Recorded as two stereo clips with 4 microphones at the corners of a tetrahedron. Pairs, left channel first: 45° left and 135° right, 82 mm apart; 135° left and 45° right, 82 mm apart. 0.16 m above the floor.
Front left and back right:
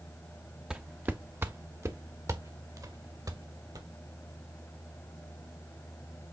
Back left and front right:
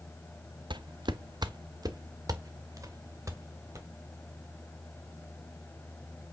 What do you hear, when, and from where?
0.7 s footsteps: 55° right, 0.7 m; by 3.9 s 95° right, 2 m